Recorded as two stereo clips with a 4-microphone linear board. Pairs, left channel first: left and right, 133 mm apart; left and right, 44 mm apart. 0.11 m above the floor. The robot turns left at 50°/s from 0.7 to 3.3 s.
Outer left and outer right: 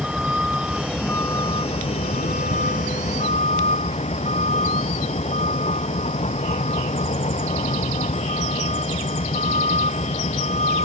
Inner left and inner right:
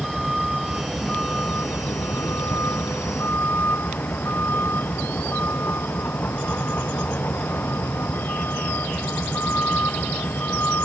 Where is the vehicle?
175° right; by 10.8 s 55° left.